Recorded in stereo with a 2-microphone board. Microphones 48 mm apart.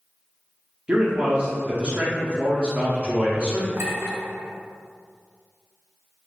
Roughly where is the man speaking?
Right.